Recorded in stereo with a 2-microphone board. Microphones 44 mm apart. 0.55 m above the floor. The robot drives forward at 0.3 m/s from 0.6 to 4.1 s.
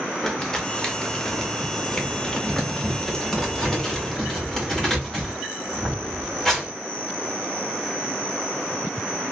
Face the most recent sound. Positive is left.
turn(degrees=5)  # may be behind; listen again after turning